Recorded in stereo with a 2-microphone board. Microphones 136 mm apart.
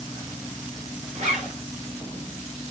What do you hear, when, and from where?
1.1 s a zipper: 50° right (ahead or behind), 4.5 m